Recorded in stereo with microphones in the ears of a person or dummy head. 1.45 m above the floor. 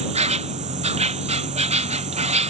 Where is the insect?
30° right (ahead or behind).